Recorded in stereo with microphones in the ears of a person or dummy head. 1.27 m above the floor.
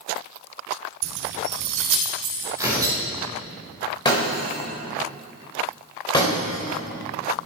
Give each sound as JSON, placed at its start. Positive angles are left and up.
{"t": 1.0, "sound": "keys jangling", "side_deg": -65, "distance_m": 1.0}
{"t": 2.6, "sound": "tearing paper", "side_deg": -15, "distance_m": 4.0}
{"t": 4.0, "sound": "breaking glass", "side_deg": 25, "distance_m": 3.5}